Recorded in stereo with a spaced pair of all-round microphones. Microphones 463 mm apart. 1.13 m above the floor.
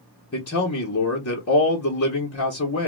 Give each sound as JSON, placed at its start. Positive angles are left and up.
{"t": 0.3, "sound": "a man speaking", "side_deg": 30, "distance_m": 0.8}